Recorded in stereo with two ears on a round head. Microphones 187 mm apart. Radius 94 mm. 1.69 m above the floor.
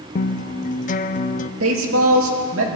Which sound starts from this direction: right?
A woman speaking, at 1.6 s.